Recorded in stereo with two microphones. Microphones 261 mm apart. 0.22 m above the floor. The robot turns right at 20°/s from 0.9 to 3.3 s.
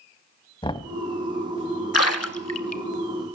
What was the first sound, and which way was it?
Knocking, 20° left (ahead or behind).